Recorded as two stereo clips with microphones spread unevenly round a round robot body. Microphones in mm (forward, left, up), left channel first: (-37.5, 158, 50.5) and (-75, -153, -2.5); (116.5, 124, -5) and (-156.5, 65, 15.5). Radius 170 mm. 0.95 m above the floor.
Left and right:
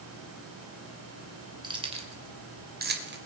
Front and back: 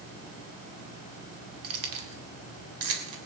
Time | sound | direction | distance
1.6 | keys jangling | 175° right | 2.5 m